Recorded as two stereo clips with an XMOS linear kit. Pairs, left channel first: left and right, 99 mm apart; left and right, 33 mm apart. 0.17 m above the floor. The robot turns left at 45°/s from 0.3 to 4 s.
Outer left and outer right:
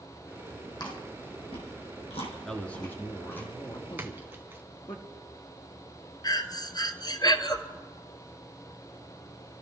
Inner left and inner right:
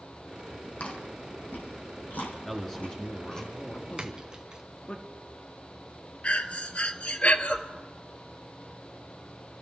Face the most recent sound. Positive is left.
turn(degrees=45)  # may be behind; listen again after turning